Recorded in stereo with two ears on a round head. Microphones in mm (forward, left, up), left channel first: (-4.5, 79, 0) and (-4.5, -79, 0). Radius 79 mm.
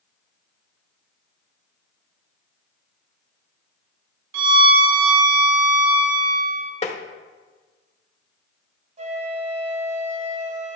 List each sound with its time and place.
4.3 s a violin: 75° right (ahead or behind), 1.5 m
6.8 s tapping: 35° left (ahead or behind), 1.0 m
9.0 s a flute: 40° right (ahead or behind), 2 m